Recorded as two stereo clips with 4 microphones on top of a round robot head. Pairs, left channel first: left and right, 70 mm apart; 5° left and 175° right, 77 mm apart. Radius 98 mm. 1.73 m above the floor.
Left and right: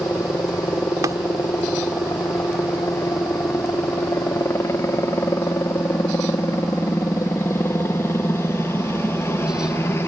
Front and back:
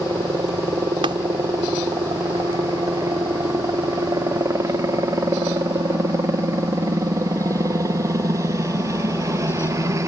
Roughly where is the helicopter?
Behind left.